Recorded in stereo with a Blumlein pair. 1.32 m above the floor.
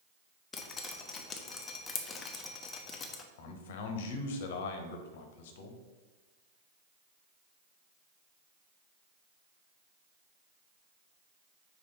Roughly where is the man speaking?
Ahead left.